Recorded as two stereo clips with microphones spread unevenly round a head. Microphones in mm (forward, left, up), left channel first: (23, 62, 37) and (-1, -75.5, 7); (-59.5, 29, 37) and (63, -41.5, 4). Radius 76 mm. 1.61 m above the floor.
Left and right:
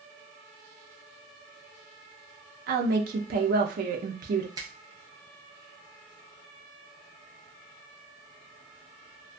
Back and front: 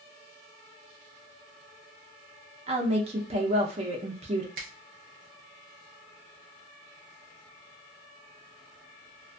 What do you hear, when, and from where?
2.7 s a woman speaking: 80° right, 0.6 m
4.6 s a finger snap: 35° right, 0.6 m